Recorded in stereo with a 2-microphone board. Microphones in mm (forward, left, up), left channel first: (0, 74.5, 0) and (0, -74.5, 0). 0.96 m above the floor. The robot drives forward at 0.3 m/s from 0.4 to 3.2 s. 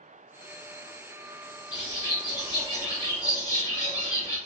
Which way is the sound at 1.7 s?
30° left (ahead or behind).